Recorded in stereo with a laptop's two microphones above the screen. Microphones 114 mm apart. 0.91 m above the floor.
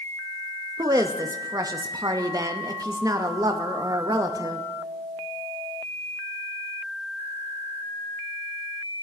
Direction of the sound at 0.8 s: 30° right (ahead or behind).